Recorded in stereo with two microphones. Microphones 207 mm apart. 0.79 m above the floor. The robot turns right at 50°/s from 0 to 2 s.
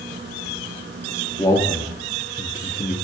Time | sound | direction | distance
1.4 | a man speaking | 15° left (ahead or behind) | 1.4 m